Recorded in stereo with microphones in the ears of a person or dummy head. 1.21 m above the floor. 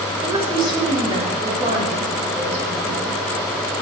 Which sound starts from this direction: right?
A woman speaking, at 0.2 s.